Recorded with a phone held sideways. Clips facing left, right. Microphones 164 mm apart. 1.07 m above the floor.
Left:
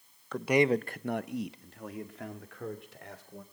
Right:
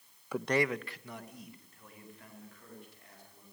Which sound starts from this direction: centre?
A man speaking, at 0.3 s.